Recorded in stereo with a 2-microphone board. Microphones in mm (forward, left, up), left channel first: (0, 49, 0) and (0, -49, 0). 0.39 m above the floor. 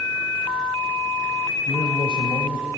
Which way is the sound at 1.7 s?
50° left (ahead or behind).